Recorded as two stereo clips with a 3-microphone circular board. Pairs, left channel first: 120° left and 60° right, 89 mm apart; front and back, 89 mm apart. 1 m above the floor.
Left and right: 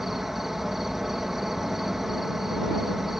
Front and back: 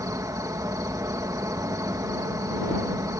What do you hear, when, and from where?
0.0 s an insect: 145° right